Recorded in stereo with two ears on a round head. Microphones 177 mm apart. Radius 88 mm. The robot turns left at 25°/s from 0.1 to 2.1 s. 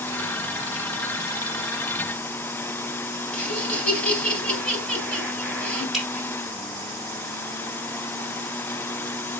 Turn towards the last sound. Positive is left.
turn(degrees=0)  # may be behind; listen again after turning